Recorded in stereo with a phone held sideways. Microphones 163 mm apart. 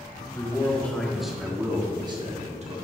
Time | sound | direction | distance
0.3 | a man speaking | 15° left (ahead or behind) | 1.9 m